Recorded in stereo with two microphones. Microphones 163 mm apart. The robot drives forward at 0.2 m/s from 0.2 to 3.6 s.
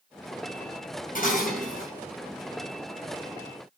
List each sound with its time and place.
1.1 s dishes clattering: 65° left (ahead or behind), 3.5 m; by 1.9 s 60° left (ahead or behind), 3.5 m